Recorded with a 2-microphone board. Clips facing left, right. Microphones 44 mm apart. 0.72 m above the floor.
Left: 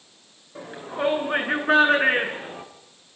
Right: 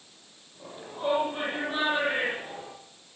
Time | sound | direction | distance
0.6 | a shout | 80° left | 9.5 m